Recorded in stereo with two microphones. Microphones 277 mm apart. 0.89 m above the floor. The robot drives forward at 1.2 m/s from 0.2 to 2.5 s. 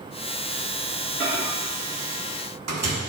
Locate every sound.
1.2 s a microwave: 40° right (ahead or behind), 1.5 m; by 3.0 s 65° right (ahead or behind), 1.1 m